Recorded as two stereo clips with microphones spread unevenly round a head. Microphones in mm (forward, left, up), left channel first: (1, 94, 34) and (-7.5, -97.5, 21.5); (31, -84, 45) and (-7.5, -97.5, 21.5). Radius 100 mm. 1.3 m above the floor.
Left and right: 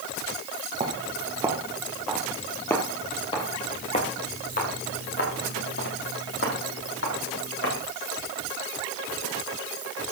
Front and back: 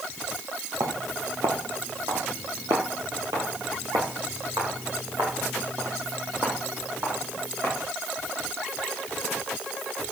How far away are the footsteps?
About 1.9 m.